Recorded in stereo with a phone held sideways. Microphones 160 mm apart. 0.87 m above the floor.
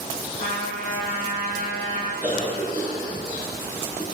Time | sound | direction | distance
0.4 | a trumpet | 35° left (ahead or behind) | 1.4 m
2.2 | a cough | 50° left (ahead or behind) | 1.4 m